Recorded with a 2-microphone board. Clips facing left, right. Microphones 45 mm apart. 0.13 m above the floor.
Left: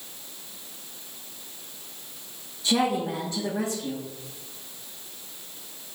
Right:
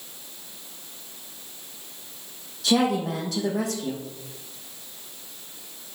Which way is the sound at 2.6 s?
70° right (ahead or behind).